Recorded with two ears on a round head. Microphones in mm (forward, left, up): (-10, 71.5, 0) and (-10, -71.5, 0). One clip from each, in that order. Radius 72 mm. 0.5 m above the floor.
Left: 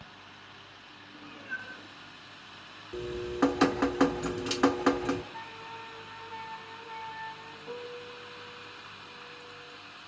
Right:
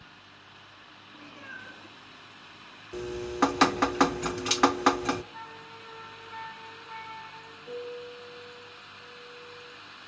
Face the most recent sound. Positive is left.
turn(degrees=-10)  # may be behind; listen again after turning